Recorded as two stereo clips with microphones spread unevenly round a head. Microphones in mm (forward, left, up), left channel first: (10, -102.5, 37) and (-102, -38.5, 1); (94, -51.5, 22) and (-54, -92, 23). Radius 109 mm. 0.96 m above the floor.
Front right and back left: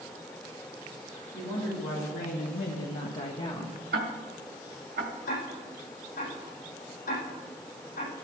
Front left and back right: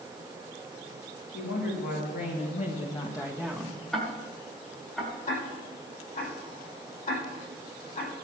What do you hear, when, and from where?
1.3 s a woman speaking: 20° left, 2.5 m; by 3.8 s 85° right, 1.6 m
3.9 s ticking: 105° left, 1.1 m
5.3 s ticking: 15° right, 7.5 m